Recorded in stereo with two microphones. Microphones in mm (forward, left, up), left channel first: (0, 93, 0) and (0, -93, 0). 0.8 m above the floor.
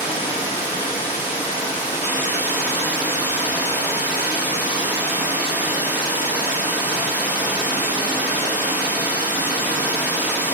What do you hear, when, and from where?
0.0 s running water: 10° right (ahead or behind), 0.8 m